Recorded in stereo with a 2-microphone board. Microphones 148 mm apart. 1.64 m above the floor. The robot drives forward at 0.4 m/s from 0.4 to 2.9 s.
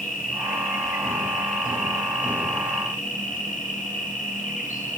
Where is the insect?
65° left (ahead or behind), 6 m; by 5.0 s 60° left (ahead or behind), 6.5 m.